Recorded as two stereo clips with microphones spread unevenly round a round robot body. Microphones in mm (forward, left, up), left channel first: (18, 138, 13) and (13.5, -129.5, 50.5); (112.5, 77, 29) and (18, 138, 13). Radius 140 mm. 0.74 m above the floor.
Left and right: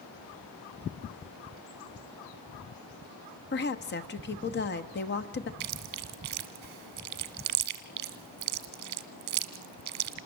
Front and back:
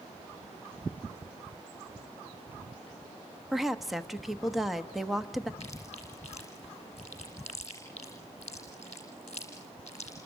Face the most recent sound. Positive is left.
turn(degrees=-105)